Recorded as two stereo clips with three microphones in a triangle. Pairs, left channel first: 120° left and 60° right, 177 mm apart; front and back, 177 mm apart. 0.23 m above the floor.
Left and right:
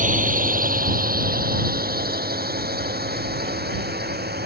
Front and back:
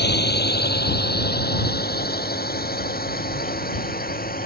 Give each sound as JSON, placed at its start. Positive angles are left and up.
{"t": 0.0, "sound": "a drone", "azimuth_deg": -20}